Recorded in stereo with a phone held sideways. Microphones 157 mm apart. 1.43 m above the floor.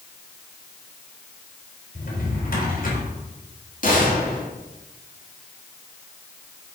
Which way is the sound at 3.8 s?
55° left (ahead or behind).